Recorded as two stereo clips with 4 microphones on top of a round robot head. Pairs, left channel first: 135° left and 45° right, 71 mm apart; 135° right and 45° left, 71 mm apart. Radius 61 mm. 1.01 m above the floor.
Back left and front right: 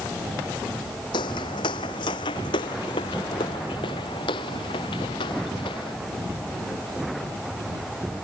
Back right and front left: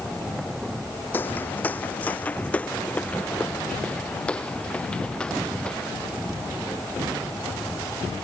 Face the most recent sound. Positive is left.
turn(degrees=145)